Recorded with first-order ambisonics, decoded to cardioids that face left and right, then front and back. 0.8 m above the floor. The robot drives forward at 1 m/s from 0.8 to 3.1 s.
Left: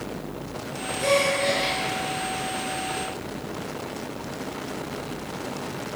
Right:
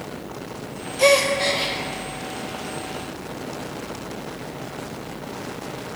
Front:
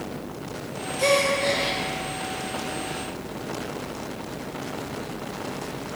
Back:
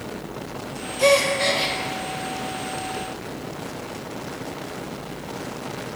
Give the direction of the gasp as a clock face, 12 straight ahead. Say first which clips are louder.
Right 5 dB, back 3 dB; 3 o'clock.